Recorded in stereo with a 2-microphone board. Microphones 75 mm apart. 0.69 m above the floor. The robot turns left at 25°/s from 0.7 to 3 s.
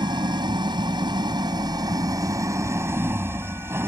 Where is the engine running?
90° right; by 3.9 s 145° right.